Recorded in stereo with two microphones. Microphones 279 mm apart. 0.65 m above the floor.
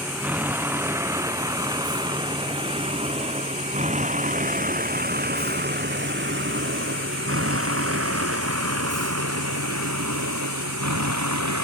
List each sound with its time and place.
0.0 s a vehicle: 5° right (ahead or behind); by 11.7 s 75° right (ahead or behind)